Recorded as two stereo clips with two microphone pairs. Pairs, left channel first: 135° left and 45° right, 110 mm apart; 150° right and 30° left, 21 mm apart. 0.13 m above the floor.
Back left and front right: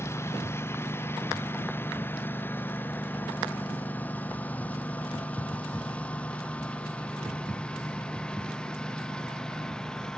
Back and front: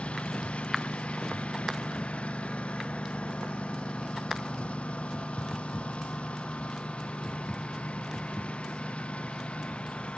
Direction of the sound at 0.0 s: 155° right.